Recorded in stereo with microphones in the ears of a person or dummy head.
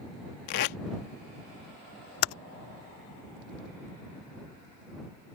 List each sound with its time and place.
0.5 s tape being pulled: 50° left (ahead or behind)
2.2 s typing on a keyboard: 75° left (ahead or behind)